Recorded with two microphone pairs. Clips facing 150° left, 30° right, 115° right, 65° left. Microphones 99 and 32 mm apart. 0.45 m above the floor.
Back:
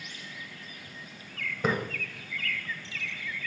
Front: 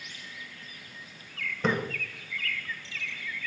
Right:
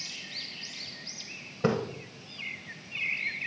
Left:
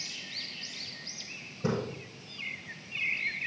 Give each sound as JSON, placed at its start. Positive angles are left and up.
{"t": 1.6, "sound": "a splash", "azimuth_deg": -130, "distance_m": 1.1}